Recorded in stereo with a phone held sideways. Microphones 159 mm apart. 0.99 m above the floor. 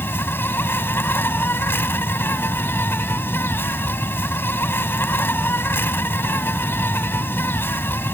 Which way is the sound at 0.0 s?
15° left (ahead or behind).